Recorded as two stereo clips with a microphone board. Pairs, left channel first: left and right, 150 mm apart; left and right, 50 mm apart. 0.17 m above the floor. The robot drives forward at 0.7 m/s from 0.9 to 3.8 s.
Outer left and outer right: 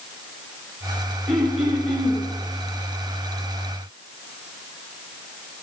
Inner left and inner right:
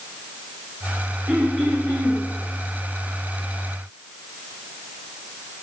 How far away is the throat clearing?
About 3 m.